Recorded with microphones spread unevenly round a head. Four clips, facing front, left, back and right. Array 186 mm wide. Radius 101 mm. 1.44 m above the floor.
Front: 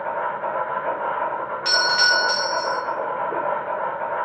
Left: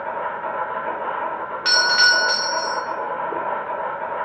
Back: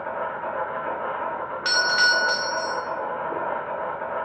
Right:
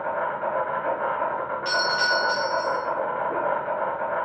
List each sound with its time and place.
0.0 s an insect: 45° right, 1.6 m
1.6 s a doorbell: 120° left, 0.9 m